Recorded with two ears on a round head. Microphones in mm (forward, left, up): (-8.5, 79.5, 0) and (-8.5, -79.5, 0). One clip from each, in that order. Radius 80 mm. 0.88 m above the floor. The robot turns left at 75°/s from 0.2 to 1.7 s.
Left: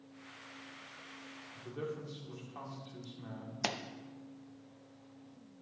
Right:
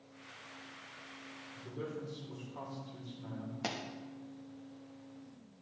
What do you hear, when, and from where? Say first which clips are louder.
1.6 s a man speaking: left 1 dB; 45° left (ahead or behind), 2 m; by 3.5 s 55° left (ahead or behind), 2 m
3.6 s a pop: left 3 dB; 45° left (ahead or behind), 0.5 m